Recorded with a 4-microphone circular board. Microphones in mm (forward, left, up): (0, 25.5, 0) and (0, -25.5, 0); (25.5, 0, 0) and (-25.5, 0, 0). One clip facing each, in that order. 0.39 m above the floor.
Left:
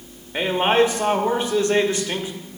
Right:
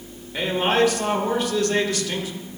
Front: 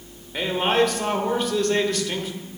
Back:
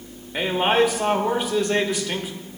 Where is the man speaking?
115° left, 0.9 m.